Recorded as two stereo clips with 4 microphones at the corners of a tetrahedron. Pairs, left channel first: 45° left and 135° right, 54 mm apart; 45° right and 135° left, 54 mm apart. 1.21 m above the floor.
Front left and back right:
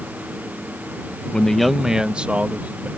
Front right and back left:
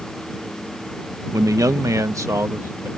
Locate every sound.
1.3 s a man speaking: 115° left; by 2.9 s 170° left